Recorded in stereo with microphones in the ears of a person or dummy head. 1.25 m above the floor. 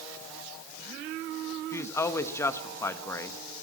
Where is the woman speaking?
10° left (ahead or behind), 1.2 m.